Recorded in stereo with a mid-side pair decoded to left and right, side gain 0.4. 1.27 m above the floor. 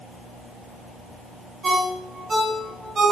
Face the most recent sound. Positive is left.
turn(degrees=-55)